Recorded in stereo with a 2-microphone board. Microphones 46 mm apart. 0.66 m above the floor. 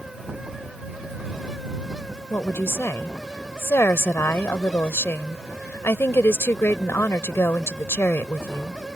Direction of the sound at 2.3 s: 60° left (ahead or behind).